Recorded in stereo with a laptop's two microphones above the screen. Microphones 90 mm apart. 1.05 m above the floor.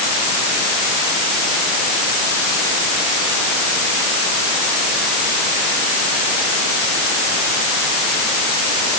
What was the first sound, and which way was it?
Only background noise.